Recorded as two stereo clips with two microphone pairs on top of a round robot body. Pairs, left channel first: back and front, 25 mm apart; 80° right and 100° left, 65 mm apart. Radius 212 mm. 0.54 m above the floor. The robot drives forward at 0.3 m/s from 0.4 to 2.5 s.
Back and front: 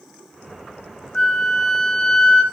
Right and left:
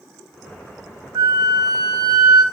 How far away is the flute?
About 1.8 m.